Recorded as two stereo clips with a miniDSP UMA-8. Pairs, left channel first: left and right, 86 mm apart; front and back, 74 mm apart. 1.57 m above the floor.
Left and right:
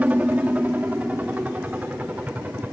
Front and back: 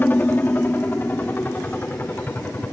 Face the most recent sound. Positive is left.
turn(degrees=-35)